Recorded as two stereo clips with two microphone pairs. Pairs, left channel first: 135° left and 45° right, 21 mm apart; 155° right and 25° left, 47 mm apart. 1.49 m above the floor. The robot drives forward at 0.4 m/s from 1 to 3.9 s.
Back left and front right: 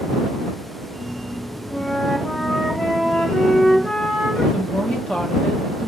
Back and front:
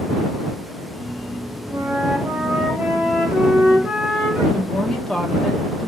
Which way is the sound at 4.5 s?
125° left.